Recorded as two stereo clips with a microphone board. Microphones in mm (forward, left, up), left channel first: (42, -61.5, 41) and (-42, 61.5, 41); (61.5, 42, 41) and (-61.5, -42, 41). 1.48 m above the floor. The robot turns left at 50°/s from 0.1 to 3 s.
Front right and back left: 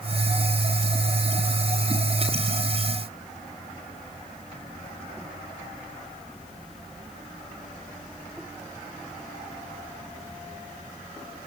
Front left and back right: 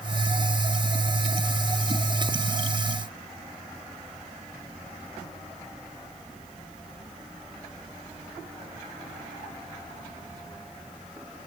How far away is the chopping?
I don't hear chopping.